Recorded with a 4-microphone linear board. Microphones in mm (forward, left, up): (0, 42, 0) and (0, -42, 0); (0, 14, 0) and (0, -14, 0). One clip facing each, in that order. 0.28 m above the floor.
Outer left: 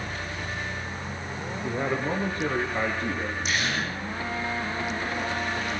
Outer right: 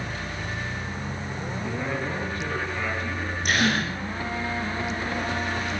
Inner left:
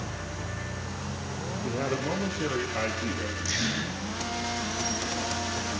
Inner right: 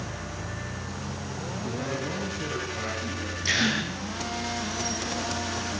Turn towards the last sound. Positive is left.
turn(degrees=-55)  # may be behind; listen again after turning